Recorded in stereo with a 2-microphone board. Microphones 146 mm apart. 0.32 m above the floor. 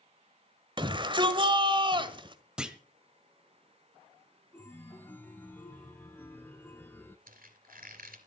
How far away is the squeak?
About 2.5 m.